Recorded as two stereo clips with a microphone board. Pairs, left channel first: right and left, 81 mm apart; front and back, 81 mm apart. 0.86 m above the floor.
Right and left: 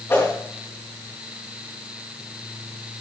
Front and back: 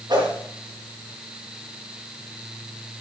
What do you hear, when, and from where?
0.1 s a whoosh: 150° right, 5.5 m